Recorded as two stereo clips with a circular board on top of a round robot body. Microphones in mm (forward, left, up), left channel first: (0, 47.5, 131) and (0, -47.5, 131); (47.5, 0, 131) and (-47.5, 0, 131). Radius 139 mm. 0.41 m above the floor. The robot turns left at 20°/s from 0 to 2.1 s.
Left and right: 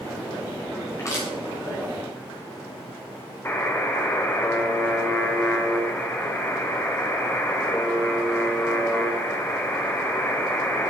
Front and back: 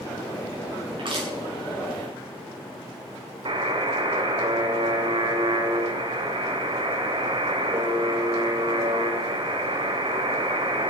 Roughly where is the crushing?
Behind left.